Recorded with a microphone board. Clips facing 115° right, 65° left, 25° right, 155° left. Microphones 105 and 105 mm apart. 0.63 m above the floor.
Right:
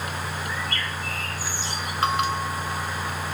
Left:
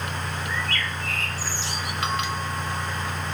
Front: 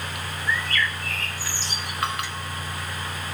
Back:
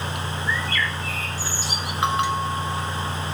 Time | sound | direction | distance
0.5 | a bird | 75° left | 1.1 m
2.0 | a bell | 145° right | 1.0 m